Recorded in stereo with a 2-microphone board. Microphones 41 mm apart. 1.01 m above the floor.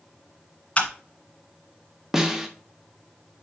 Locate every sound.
0.8 s a camera shutter: 30° left (ahead or behind), 1.6 m
2.1 s a snare drum: 10° right (ahead or behind), 1.1 m